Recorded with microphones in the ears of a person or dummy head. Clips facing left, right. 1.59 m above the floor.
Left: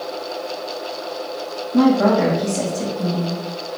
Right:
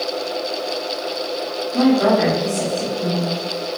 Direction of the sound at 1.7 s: 40° left (ahead or behind).